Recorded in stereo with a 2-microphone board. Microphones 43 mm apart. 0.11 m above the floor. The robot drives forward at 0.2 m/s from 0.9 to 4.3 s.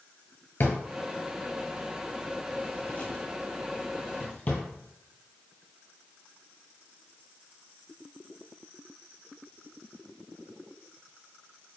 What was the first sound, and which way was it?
A drawer, 45° left (ahead or behind).